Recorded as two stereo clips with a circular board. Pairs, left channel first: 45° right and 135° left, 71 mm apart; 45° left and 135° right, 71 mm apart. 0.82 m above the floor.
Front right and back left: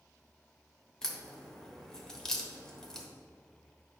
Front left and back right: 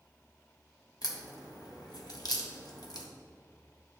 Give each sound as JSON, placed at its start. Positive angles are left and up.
{"t": 1.0, "sound": "a crack", "azimuth_deg": 35, "distance_m": 1.1}